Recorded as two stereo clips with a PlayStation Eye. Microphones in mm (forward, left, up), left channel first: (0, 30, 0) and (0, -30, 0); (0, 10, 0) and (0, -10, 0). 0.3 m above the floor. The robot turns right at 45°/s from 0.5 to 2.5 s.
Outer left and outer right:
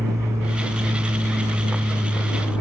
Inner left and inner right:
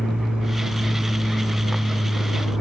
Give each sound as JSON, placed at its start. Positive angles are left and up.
{"t": 0.0, "sound": "an aircraft", "azimuth_deg": -110}